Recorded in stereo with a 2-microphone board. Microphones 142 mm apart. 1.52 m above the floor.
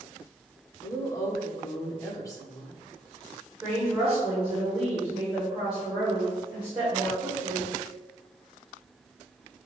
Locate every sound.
0.8 s a woman speaking: 25° left (ahead or behind), 1.0 m
3.6 s a woman speaking: 10° right (ahead or behind), 1.5 m